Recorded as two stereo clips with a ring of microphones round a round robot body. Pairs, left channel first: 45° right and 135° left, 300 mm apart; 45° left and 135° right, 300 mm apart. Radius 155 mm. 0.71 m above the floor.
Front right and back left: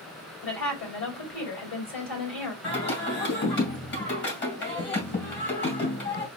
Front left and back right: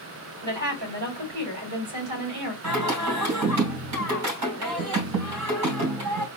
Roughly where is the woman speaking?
Right.